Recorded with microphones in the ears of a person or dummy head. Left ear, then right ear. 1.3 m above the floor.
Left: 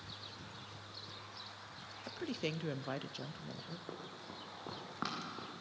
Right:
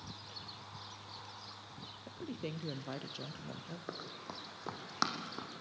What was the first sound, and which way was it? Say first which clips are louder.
A woman speaking: left 4 dB; 35° left (ahead or behind).